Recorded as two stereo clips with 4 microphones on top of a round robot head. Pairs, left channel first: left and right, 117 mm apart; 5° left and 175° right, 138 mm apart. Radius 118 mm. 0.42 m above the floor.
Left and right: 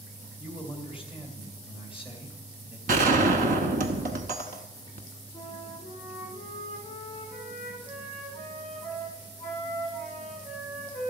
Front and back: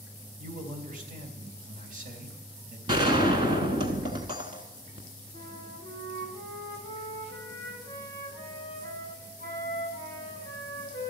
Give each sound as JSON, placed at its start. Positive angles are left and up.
{"t": 0.4, "sound": "a man speaking", "azimuth_deg": -170, "distance_m": 2.5}
{"t": 2.9, "sound": "a gunshot", "azimuth_deg": -110, "distance_m": 0.8}
{"t": 5.3, "sound": "a flute", "azimuth_deg": 175, "distance_m": 5.5}